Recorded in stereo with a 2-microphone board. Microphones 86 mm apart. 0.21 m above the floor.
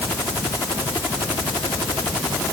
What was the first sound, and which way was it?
Only background noise.